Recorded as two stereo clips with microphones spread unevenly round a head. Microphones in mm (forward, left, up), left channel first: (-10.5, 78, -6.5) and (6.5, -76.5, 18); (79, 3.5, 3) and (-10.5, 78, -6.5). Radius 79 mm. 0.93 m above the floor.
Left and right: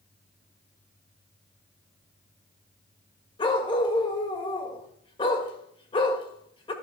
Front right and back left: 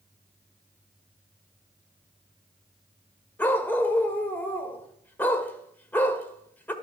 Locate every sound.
3.4 s a dog barking: 35° left, 1.6 m